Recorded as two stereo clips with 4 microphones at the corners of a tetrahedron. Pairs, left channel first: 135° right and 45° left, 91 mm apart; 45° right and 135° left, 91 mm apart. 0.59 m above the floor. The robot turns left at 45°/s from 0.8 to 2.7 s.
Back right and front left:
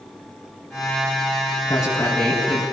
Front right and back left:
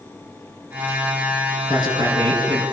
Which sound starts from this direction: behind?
A man speaking, at 1.7 s.